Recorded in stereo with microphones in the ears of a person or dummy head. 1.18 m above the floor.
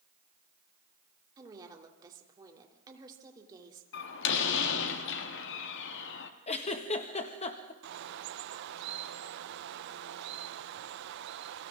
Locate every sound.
1.4 s a woman speaking: 15° right (ahead or behind), 3 m
3.9 s a door slam: 75° left (ahead or behind), 1.6 m
6.5 s a giggle: 30° left (ahead or behind), 1.9 m
7.8 s a bird: 55° right (ahead or behind), 0.7 m